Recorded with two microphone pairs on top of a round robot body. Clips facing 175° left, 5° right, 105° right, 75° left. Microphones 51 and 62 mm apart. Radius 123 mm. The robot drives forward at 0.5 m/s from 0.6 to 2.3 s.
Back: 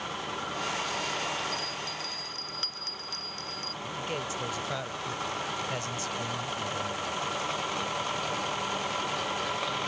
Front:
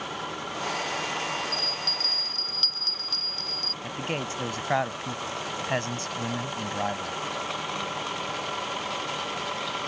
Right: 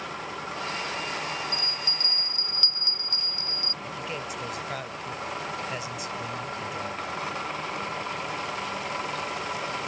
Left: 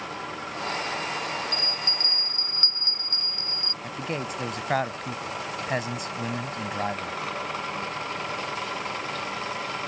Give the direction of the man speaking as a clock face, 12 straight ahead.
11 o'clock.